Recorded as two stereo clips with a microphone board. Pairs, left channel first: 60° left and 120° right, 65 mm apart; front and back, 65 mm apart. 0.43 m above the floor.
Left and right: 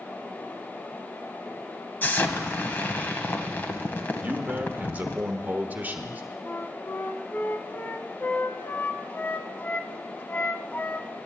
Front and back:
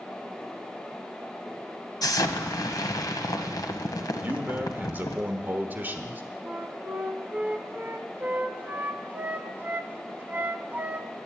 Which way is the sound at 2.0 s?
5° left.